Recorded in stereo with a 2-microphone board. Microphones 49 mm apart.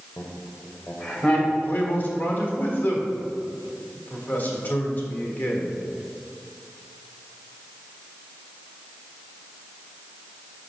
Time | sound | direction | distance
0.2 | laughter | 55° left (ahead or behind) | 1.4 m
1.6 | a man speaking | 40° left (ahead or behind) | 1.4 m